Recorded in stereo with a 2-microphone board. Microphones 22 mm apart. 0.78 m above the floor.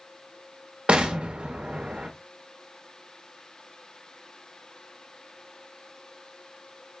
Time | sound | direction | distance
0.9 | an explosion | 60° right (ahead or behind) | 0.8 m